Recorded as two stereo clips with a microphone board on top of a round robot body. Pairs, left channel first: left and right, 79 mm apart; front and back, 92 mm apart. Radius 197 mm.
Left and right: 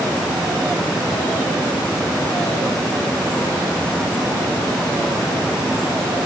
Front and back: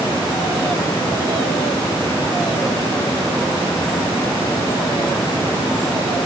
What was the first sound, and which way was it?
Only background noise.